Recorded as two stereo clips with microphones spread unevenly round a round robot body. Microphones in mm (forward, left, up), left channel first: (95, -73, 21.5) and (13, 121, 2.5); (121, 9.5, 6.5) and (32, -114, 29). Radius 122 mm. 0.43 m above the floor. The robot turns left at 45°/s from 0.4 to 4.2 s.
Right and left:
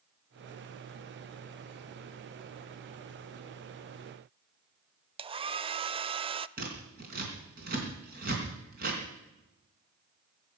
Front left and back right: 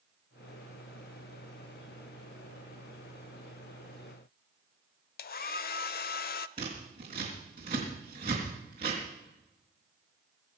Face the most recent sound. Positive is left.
turn(degrees=165)